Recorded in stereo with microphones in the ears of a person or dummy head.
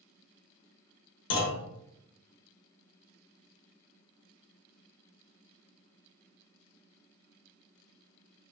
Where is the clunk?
65° left (ahead or behind), 0.6 m.